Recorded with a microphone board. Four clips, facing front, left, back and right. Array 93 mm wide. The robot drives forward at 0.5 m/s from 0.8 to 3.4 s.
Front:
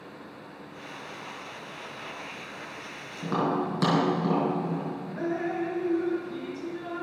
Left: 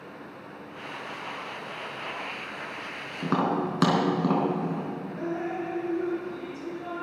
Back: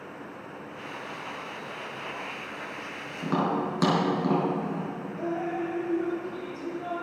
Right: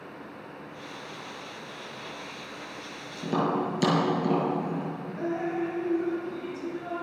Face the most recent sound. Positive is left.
turn(degrees=0)